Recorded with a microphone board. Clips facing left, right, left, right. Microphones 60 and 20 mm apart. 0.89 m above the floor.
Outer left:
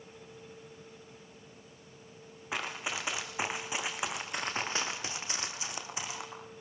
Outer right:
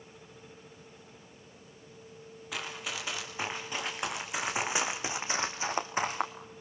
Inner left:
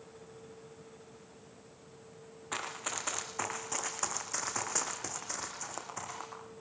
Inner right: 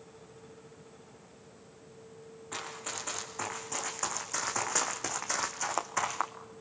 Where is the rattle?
I don't hear a rattle.